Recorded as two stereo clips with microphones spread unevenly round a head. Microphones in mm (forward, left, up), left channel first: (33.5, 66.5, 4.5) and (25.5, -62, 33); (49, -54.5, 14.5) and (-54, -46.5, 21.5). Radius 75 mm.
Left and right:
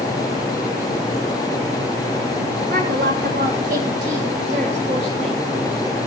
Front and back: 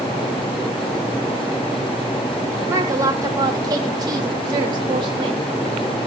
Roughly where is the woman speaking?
Behind right.